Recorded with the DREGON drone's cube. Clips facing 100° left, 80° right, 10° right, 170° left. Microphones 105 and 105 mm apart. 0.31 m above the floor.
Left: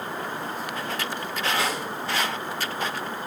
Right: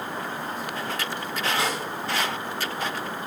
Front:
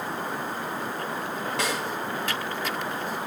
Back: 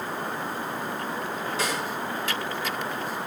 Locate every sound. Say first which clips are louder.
1.6 s a snare drum: even, even; 20° right, 3.5 m